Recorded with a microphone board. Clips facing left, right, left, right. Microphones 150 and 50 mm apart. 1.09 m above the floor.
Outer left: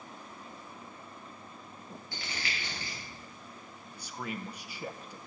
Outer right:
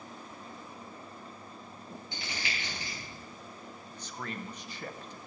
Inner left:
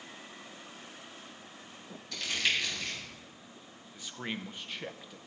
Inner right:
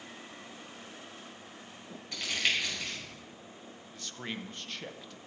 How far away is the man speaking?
About 0.6 m.